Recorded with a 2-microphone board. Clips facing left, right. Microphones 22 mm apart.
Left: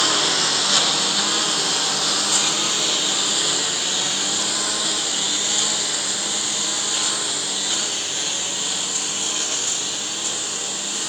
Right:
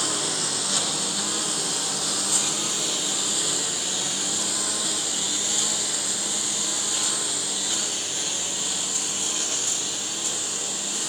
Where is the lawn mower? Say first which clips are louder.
Left 8 dB; 45° left (ahead or behind); by 11.1 s 20° left (ahead or behind).